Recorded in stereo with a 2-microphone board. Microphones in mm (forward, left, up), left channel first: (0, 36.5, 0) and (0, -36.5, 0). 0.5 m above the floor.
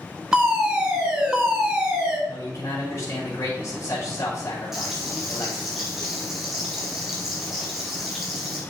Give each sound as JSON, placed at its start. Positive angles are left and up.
{"t": 0.3, "sound": "a fire alarm", "side_deg": -15, "distance_m": 3.0}
{"t": 2.3, "sound": "a man speaking", "side_deg": 45, "distance_m": 4.5}
{"t": 4.7, "sound": "frying", "side_deg": -5, "distance_m": 3.5}